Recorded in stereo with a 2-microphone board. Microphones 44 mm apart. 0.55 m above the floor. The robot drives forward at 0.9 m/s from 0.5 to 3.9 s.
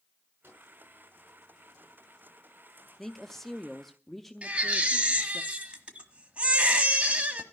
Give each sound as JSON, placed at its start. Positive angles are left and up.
{"t": 0.4, "sound": "a microwave", "side_deg": -55, "distance_m": 6.5}
{"t": 3.0, "sound": "a woman speaking", "side_deg": 5, "distance_m": 0.8}
{"t": 4.4, "sound": "a baby crying", "side_deg": -25, "distance_m": 1.3}